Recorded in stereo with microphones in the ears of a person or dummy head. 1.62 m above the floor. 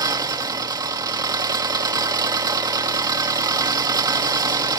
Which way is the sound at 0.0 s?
20° right (ahead or behind).